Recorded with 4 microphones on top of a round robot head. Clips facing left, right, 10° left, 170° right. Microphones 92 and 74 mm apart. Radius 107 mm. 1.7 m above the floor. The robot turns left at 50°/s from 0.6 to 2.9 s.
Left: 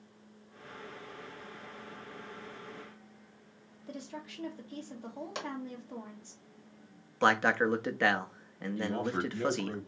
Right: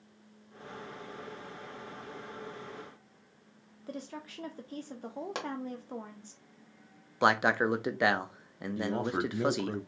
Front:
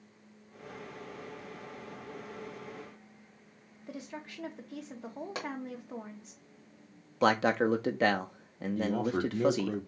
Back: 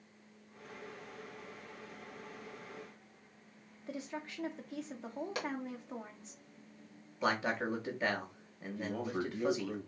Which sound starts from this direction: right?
A woman speaking, at 3.9 s.